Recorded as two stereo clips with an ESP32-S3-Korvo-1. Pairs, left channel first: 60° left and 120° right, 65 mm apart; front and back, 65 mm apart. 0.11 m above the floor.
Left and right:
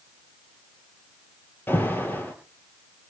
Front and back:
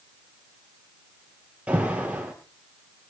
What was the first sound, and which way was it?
An alarm, 110° left.